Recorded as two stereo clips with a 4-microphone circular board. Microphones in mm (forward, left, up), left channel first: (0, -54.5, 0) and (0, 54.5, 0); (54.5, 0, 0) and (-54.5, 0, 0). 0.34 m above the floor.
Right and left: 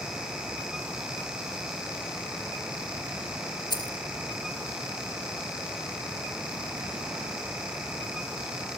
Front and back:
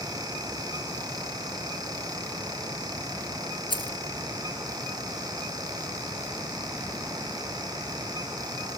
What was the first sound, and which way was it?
Keys jangling, 40° right.